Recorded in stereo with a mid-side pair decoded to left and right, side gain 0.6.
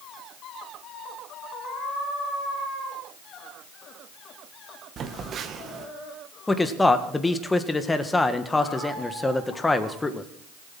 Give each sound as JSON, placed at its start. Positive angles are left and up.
{"t": 5.0, "sound": "a phone buzzing", "azimuth_deg": -45, "distance_m": 2.0}
{"t": 6.5, "sound": "a man speaking", "azimuth_deg": 15, "distance_m": 1.7}